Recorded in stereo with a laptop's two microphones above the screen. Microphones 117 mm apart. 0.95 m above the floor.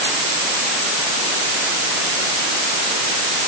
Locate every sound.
Only background noise.